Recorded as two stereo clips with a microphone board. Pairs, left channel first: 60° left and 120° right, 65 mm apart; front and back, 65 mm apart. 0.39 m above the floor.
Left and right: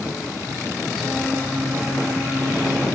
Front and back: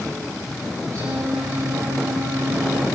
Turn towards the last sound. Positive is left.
turn(degrees=165)